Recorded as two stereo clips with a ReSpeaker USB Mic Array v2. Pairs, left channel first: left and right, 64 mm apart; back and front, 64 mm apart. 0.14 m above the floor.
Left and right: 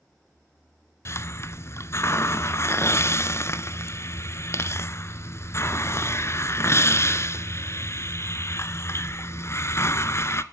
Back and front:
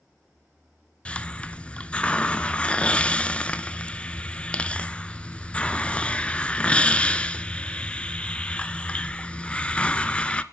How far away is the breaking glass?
No breaking glass in this recording.